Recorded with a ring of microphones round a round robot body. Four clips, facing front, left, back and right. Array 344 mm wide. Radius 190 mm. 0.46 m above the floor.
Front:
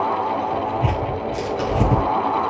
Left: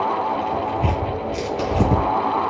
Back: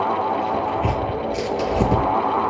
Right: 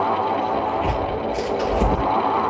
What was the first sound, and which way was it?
Tearing paper, 65° left.